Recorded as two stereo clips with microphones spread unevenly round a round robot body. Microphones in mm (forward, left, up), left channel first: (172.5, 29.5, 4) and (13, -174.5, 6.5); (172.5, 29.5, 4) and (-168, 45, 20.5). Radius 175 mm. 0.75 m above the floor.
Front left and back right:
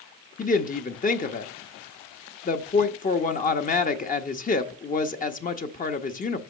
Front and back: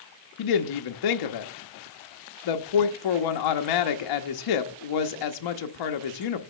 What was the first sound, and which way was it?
A woman speaking, 10° right.